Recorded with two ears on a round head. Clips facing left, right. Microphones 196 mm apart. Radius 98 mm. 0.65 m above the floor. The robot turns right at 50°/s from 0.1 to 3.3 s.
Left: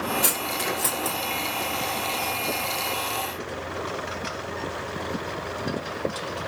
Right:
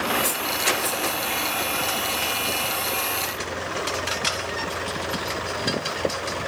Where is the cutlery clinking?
75° left (ahead or behind), 0.8 m; by 1.1 s 50° left (ahead or behind), 0.8 m.